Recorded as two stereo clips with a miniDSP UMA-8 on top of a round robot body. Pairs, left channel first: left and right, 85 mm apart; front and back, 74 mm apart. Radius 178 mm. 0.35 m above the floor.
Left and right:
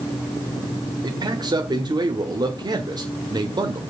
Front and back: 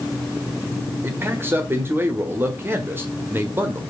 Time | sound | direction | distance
1.0 | a man speaking | 120° right | 1.6 m